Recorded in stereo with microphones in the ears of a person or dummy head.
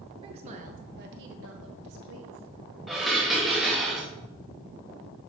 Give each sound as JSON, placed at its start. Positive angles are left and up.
{"t": 0.2, "sound": "a woman speaking", "side_deg": -30, "distance_m": 1.3}
{"t": 2.9, "sound": "dishes clattering", "side_deg": -5, "distance_m": 0.9}